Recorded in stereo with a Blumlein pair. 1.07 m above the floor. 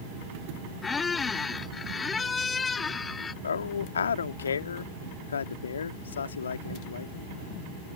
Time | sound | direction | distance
0.8 | a squeak | 15° left | ?
3.4 | a man speaking | 70° left | ?